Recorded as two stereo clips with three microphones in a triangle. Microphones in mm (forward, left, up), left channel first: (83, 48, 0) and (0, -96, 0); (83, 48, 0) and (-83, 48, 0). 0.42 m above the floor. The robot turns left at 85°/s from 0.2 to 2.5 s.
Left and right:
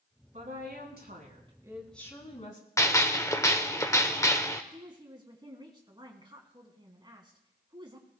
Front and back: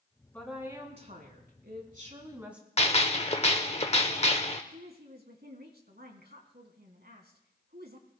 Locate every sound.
0.3 s a woman speaking: 80° right, 3.5 m; by 2.7 s 100° left, 3.5 m
2.8 s a gunshot: straight ahead, 1.1 m
4.7 s a woman speaking: straight behind, 3 m